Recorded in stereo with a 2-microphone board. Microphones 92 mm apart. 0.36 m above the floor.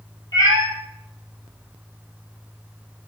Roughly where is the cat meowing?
Left.